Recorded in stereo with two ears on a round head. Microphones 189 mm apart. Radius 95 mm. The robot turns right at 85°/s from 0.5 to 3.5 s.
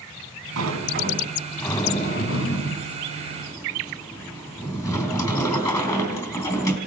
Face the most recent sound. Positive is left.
turn(degrees=160)